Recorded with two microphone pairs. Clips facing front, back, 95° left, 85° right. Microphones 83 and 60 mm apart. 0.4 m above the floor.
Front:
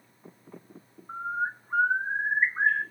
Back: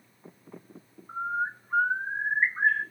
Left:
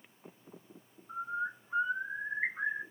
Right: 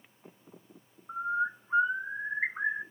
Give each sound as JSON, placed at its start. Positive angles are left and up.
{"t": 1.1, "sound": "a bird", "azimuth_deg": -65, "distance_m": 1.9}